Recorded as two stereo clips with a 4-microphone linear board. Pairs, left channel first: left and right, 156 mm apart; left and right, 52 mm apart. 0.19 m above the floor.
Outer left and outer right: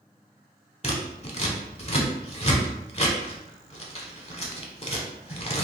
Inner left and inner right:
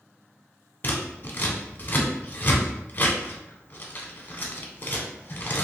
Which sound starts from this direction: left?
Scissors, at 0.8 s.